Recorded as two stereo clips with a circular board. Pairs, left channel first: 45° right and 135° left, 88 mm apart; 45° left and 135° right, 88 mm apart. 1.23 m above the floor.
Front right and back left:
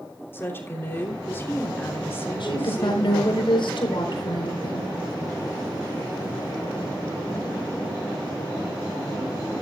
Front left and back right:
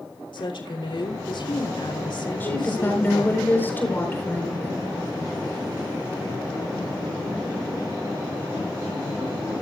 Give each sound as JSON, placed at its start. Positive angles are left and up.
{"t": 0.3, "sound": "a woman speaking", "azimuth_deg": 20, "distance_m": 3.0}
{"t": 2.4, "sound": "a woman speaking", "azimuth_deg": -25, "distance_m": 4.0}